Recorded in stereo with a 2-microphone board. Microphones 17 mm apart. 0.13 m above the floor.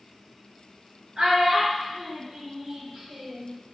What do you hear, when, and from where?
1.2 s a child speaking: 45° right (ahead or behind), 1.0 m; by 3.5 s 75° right (ahead or behind), 2.5 m